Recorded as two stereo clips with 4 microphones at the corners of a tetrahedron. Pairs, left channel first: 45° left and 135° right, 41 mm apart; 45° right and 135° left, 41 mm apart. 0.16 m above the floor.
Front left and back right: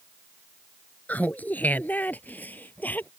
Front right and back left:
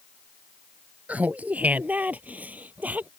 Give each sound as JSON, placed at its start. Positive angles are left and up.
{"t": 1.1, "sound": "laughter", "azimuth_deg": 90}